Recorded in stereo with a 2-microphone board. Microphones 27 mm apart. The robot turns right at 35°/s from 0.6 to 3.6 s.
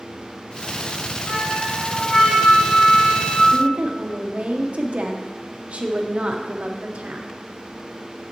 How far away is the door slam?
No door slam in this recording.